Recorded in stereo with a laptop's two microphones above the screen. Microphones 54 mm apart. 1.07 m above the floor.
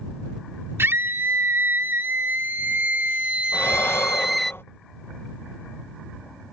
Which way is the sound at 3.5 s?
45° left (ahead or behind).